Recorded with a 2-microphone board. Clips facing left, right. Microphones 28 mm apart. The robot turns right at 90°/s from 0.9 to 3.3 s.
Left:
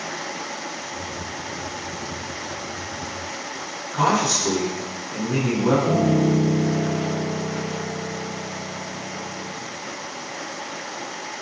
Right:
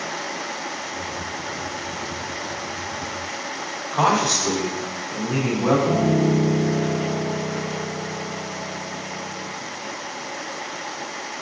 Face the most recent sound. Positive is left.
turn(degrees=5)  # may be behind; listen again after turning